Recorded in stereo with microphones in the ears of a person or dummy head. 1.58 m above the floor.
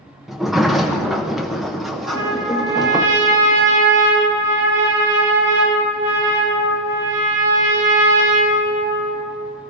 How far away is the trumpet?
About 5 m.